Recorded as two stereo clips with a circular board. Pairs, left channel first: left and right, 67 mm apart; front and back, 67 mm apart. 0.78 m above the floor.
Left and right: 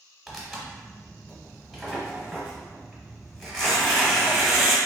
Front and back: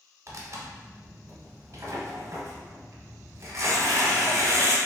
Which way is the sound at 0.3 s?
Straight behind.